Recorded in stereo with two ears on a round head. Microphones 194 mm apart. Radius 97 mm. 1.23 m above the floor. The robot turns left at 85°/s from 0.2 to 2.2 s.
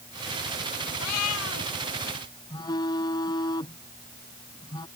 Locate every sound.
1.0 s a cat meowing: 100° left; by 1.7 s 40° left
2.5 s a phone buzzing: 20° left (ahead or behind)